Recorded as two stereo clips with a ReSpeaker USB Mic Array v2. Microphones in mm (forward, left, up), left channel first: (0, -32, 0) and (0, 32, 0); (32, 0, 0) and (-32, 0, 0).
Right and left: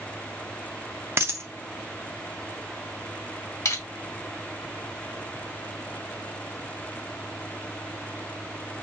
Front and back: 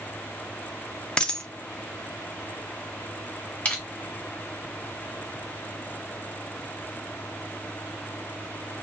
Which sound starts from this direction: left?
A dropped coin, at 1.2 s.